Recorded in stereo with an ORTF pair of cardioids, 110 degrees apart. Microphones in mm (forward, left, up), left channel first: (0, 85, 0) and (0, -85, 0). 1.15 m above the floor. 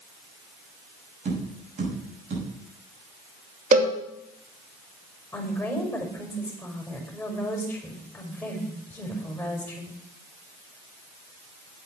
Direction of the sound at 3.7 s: 50° right.